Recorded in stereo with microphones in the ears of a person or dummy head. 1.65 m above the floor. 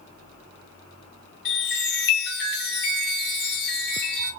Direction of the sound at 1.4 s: 55° left (ahead or behind).